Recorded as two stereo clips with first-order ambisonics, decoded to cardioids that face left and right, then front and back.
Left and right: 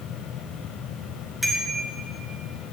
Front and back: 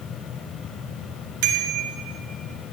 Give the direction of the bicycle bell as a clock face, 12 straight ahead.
6 o'clock.